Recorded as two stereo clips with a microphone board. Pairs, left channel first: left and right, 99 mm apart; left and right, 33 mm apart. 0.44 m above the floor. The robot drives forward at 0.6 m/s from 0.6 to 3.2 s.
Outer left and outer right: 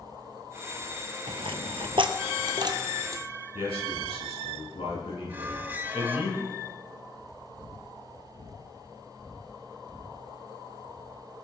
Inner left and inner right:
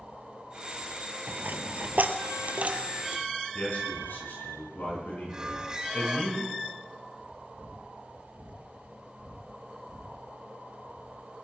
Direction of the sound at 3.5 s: 70° left (ahead or behind).